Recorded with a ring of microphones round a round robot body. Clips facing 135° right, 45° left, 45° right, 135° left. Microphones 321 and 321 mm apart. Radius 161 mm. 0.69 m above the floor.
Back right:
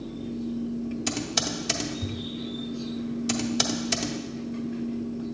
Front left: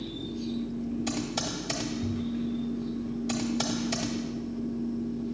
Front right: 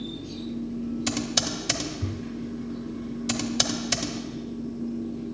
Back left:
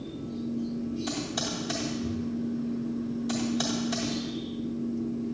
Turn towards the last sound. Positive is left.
turn(degrees=-80)